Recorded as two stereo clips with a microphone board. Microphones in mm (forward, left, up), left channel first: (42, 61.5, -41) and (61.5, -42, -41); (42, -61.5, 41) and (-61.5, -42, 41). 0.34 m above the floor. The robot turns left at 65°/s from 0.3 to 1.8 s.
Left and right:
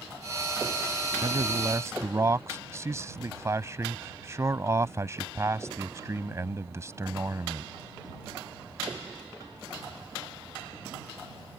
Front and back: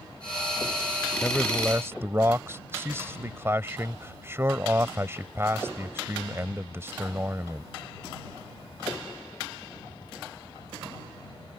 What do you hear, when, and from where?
1.2 s a man speaking: 90° right; by 7.7 s 130° right